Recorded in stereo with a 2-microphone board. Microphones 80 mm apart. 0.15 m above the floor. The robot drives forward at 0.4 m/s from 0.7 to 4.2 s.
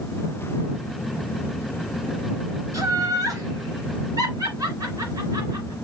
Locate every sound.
2.7 s laughter: 40° right (ahead or behind), 2.5 m; by 5.7 s 45° right (ahead or behind), 2.5 m